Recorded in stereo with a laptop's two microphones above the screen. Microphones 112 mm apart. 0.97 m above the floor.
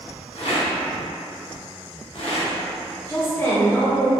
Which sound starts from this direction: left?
A rattle, at 0.3 s.